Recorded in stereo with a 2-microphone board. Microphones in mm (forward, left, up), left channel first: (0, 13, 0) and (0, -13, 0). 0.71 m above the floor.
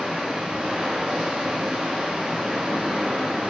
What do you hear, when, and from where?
0.0 s running water: 60° right (ahead or behind), 1.7 m